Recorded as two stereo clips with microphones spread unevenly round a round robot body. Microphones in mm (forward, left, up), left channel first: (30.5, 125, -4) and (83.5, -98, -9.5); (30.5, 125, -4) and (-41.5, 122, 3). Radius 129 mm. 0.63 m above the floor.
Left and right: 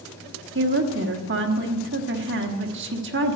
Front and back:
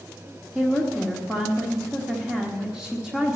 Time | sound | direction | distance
0.6 | a woman speaking | 95° right | 1.2 m